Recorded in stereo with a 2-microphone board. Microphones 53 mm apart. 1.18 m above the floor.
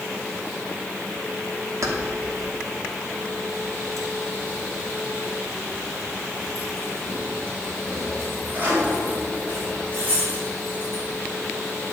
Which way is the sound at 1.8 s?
65° right (ahead or behind).